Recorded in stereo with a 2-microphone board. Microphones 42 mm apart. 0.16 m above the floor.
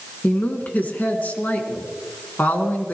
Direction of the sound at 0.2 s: 45° left (ahead or behind).